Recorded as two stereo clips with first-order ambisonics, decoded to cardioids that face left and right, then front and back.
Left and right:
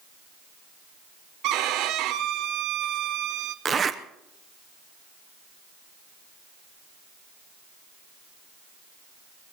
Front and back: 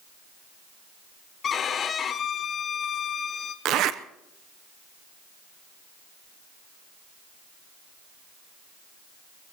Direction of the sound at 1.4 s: 60° right.